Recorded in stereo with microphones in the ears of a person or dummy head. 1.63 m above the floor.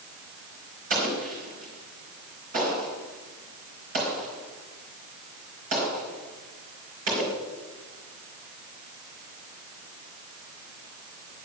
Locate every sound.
0.9 s an explosion: 45° right (ahead or behind), 4.5 m